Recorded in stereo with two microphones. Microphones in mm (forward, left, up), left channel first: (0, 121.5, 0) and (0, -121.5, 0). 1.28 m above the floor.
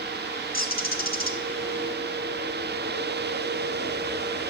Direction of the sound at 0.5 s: 40° left (ahead or behind).